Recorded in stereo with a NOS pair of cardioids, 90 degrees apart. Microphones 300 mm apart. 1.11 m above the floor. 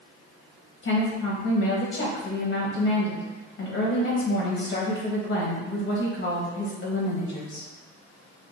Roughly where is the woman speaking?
Ahead left.